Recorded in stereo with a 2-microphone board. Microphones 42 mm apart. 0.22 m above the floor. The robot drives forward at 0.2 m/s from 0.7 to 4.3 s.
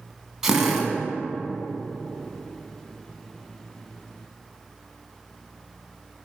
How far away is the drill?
About 1.1 m.